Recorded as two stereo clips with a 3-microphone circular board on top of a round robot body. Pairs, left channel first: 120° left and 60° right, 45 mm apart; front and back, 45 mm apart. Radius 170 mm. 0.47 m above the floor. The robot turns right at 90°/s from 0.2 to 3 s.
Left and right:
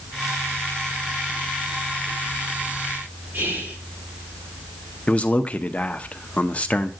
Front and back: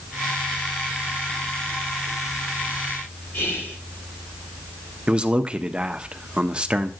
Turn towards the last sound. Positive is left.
turn(degrees=140)